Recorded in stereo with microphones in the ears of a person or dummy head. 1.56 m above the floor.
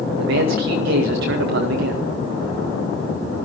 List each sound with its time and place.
0.2 s a man speaking: 75° right (ahead or behind), 2.0 m